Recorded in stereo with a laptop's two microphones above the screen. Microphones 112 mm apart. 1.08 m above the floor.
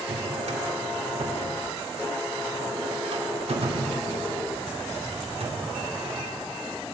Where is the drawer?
70° right (ahead or behind), 2 m.